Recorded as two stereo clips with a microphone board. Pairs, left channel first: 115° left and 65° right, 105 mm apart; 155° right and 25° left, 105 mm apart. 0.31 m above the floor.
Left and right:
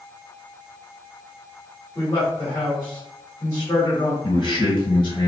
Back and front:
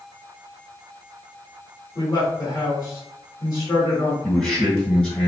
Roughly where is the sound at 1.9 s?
Behind.